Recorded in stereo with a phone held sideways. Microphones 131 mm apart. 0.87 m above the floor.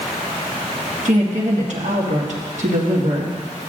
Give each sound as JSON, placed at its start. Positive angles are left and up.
{"t": 1.1, "sound": "a woman speaking", "side_deg": -65, "distance_m": 1.6}